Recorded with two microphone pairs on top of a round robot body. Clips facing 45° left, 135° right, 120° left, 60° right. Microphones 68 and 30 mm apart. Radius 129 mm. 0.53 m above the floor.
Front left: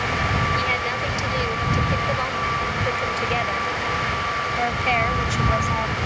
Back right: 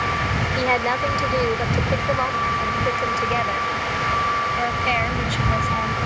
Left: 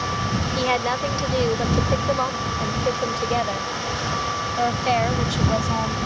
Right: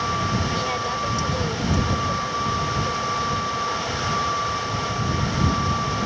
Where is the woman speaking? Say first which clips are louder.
Back right 3 dB, left 3 dB; straight behind; by 6.0 s 125° left.